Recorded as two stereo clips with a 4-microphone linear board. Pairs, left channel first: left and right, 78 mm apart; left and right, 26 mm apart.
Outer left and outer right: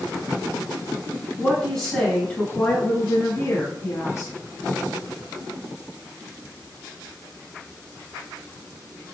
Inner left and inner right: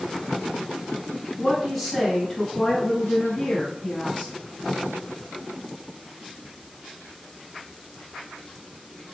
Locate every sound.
1.4 s a woman speaking: centre (ahead or behind), 1.2 m; by 4.3 s 45° left (ahead or behind), 1.5 m